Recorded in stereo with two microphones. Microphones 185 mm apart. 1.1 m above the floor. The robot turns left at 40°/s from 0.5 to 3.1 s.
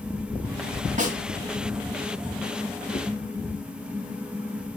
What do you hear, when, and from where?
1.0 s a snare drum: 40° right (ahead or behind), 3 m; by 1.2 s 50° right (ahead or behind), 3 m
2.9 s a whoosh: 45° left (ahead or behind), 1.0 m; by 3.1 s 40° left (ahead or behind), 1.0 m